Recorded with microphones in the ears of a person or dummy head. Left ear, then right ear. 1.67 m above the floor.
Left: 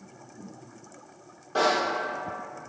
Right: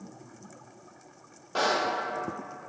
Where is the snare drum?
20° right (ahead or behind), 1.8 m.